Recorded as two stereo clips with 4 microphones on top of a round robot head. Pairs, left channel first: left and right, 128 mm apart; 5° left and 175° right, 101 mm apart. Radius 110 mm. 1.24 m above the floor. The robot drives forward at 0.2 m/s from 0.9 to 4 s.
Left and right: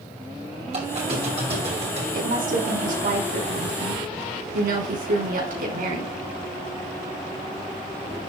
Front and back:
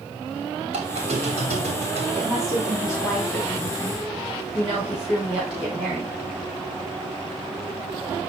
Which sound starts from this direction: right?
A woman speaking, at 2.1 s.